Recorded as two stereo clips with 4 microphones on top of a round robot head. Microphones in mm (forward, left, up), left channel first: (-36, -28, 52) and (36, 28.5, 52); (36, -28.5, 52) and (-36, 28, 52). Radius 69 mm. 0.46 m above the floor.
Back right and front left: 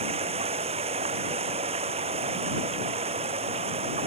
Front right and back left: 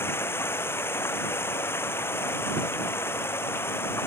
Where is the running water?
30° left.